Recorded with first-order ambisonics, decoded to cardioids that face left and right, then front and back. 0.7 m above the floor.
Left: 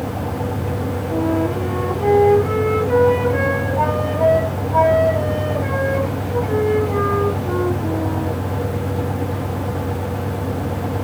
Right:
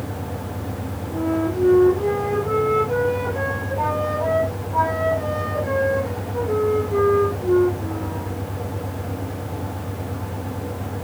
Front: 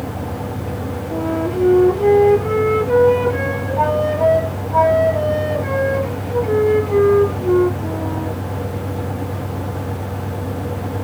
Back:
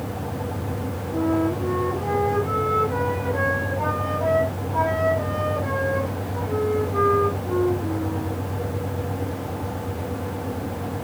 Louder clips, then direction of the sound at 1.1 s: Left 2 dB, front 1 dB; 40° left.